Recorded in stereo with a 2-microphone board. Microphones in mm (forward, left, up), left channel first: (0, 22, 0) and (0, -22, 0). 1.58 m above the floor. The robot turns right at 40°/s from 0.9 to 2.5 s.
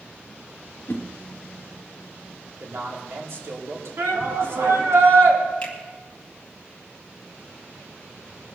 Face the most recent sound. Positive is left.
turn(degrees=25)  # may be behind; listen again after turning